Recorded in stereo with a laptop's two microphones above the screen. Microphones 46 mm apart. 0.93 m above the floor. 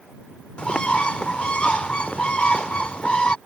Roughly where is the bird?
Left.